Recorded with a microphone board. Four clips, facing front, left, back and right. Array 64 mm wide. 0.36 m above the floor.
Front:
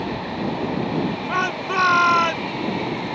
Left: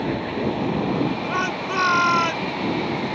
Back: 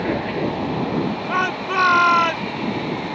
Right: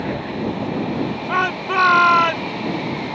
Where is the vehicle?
165° right; by 3.2 s 130° left.